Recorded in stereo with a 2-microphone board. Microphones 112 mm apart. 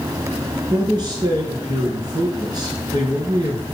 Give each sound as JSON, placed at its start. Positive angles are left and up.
{"t": 0.7, "sound": "a man speaking", "side_deg": -40, "distance_m": 4.0}